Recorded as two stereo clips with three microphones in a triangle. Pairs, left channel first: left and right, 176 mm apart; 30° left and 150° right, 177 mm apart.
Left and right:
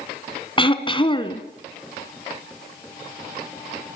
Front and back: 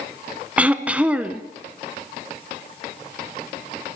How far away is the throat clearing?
About 1.4 m.